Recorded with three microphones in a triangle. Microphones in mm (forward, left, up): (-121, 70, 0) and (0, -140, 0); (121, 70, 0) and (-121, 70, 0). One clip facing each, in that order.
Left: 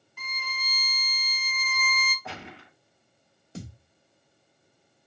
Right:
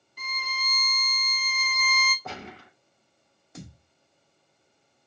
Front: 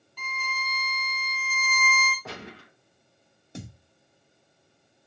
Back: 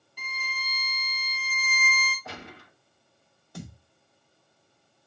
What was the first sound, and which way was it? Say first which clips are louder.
A violin: right 3 dB, front 5 dB; 105° right.